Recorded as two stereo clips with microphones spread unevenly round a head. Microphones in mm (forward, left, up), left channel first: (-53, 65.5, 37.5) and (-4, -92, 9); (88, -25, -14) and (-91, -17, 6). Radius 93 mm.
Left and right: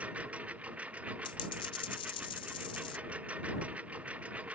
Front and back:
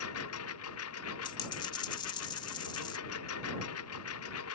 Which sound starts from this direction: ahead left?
A dropped coin, at 1.2 s.